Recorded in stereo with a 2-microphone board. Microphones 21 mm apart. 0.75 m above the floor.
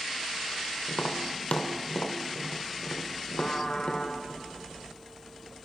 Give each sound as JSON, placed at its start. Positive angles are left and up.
{"t": 0.9, "sound": "tapping", "side_deg": 80, "distance_m": 1.9}
{"t": 3.4, "sound": "a trumpet", "side_deg": 35, "distance_m": 2.5}